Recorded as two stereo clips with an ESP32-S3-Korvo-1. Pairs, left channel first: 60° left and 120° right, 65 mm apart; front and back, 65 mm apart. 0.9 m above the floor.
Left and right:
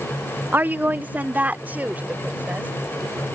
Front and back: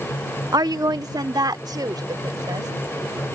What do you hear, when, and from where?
0.5 s a woman speaking: straight behind; by 2.7 s 170° left